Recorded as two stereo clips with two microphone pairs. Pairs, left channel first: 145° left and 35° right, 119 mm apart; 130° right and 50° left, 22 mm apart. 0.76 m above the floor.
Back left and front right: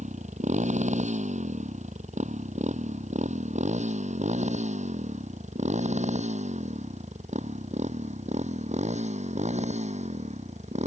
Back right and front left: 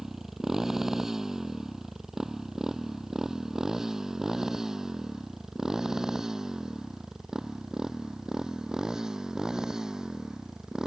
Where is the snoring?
No snoring in this recording.